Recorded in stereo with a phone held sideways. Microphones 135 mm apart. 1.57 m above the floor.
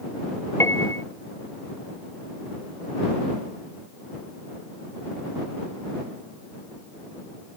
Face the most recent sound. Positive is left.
turn(degrees=20)  # may be behind; listen again after turning